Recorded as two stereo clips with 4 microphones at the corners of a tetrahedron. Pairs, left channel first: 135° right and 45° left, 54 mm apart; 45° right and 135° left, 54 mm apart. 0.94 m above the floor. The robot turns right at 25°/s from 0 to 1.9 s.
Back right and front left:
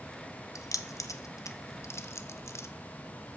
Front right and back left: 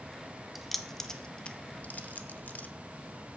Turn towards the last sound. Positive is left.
turn(degrees=-100)